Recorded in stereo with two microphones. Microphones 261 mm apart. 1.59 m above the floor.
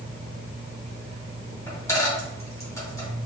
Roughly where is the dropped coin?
Centre.